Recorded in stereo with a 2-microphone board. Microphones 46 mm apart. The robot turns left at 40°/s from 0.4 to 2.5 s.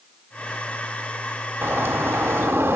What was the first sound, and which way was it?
A bird, 60° right.